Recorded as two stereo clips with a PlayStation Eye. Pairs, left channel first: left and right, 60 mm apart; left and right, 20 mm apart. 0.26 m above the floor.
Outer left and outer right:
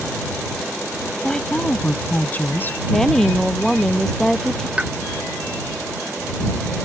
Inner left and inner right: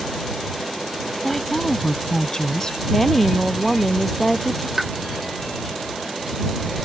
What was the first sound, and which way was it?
A woman speaking, 10° left (ahead or behind).